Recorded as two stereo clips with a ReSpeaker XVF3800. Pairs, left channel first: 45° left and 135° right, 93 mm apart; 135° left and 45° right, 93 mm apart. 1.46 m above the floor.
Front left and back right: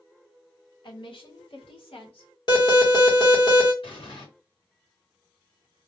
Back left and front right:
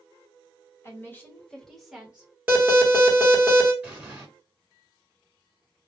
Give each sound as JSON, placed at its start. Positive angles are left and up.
{"t": 0.8, "sound": "a woman speaking", "azimuth_deg": 75, "distance_m": 1.1}
{"t": 2.5, "sound": "an alarm", "azimuth_deg": 25, "distance_m": 1.1}
{"t": 3.8, "sound": "an explosion", "azimuth_deg": 30, "distance_m": 1.2}